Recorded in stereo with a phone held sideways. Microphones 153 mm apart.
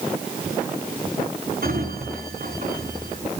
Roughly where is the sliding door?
Right.